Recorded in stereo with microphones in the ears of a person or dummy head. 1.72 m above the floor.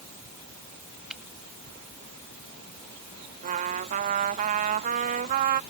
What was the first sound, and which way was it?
A finger snap, centre (ahead or behind).